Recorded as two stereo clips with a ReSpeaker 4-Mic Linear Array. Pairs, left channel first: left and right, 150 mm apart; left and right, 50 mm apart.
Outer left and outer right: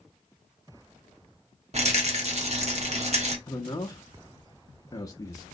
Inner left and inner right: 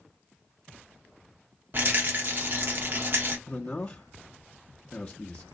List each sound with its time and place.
1.7 s a rattle: 50° right (ahead or behind), 0.9 m
3.5 s a man speaking: 25° left (ahead or behind), 0.5 m